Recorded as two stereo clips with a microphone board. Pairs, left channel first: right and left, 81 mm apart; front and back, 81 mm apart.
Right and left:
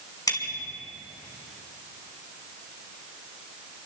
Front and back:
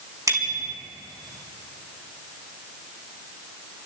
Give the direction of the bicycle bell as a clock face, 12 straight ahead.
4 o'clock.